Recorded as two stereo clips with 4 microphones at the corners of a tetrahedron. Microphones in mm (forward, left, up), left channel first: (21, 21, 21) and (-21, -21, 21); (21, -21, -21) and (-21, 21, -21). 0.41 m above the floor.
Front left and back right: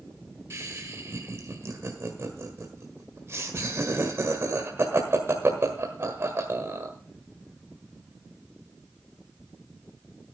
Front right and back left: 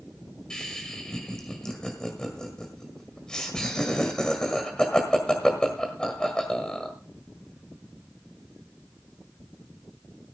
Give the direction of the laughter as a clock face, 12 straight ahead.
4 o'clock.